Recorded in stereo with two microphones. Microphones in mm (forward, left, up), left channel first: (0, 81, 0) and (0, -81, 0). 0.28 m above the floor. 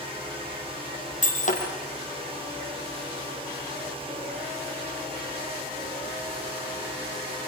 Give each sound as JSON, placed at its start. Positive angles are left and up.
{"t": 1.2, "sound": "breaking glass", "side_deg": 45, "distance_m": 5.0}